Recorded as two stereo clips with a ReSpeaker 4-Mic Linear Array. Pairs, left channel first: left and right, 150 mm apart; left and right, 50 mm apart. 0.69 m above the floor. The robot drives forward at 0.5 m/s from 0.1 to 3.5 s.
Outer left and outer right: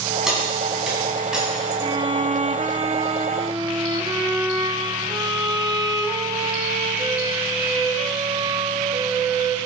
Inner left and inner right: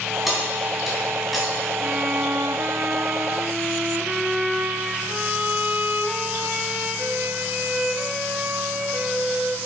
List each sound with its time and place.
0.3 s keys jangling: 5° right (ahead or behind), 3.5 m
1.8 s a violin: 30° right (ahead or behind), 0.7 m